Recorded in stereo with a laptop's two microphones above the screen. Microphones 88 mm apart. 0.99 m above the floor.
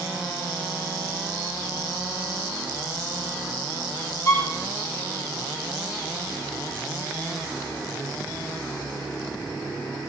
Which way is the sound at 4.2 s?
35° left (ahead or behind).